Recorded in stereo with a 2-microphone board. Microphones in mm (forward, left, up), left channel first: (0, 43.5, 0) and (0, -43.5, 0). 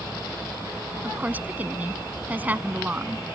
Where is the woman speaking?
20° right (ahead or behind).